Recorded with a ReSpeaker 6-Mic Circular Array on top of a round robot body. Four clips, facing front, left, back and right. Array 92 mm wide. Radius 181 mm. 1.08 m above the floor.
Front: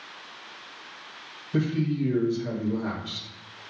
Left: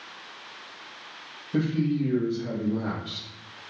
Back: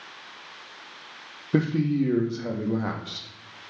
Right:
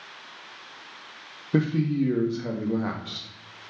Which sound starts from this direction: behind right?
A man speaking, at 1.5 s.